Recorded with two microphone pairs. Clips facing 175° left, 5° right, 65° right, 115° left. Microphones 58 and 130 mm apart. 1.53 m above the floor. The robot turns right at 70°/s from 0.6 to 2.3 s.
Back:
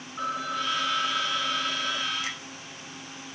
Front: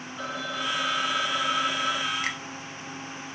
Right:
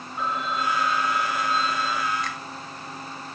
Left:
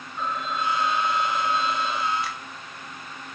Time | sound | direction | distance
0.2 | a phone ringing | 140° right | 2.0 m
2.2 | a finger snap | 30° left | 0.6 m